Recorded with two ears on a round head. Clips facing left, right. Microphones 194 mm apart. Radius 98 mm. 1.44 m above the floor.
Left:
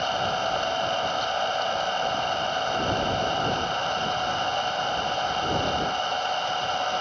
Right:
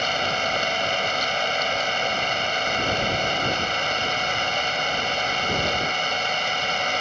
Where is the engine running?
30° right (ahead or behind).